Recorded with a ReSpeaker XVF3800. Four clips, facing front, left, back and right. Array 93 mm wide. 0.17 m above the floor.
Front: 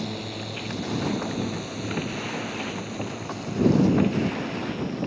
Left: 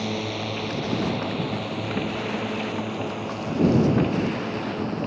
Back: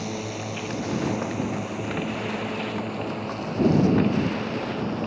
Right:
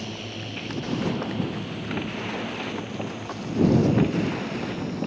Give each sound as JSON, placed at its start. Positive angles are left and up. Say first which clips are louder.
{"t": 0.0, "sound": "a drone", "louder": "left 7 dB, back 2 dB", "azimuth_deg": 105}